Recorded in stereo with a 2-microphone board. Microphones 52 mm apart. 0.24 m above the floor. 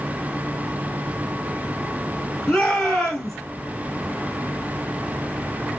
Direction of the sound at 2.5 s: 10° left (ahead or behind).